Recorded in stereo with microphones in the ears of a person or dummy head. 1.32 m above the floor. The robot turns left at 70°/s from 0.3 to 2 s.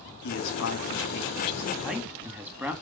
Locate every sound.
0.2 s a man speaking: 100° left, 1.7 m; by 2.7 s 20° right, 1.7 m